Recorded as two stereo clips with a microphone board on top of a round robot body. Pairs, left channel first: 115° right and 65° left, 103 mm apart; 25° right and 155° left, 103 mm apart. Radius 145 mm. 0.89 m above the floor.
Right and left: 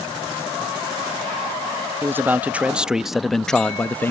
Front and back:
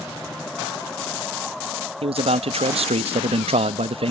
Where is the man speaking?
135° left; by 4.1 s straight behind.